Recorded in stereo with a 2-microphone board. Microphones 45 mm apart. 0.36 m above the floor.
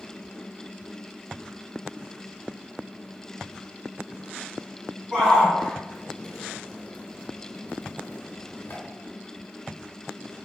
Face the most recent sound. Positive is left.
turn(degrees=60)  # may be behind; listen again after turning